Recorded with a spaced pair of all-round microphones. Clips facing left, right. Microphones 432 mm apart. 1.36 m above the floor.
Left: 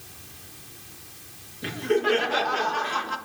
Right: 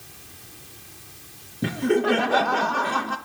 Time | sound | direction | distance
1.6 | laughter | 65° right (ahead or behind) | 1.8 m